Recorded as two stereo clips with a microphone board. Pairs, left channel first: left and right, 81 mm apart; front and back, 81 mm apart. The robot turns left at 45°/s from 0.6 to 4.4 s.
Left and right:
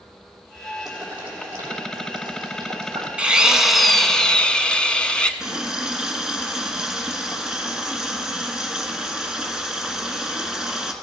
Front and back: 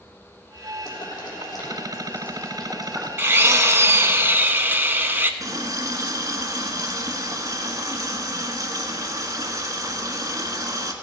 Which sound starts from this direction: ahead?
Boiling, at 0.8 s.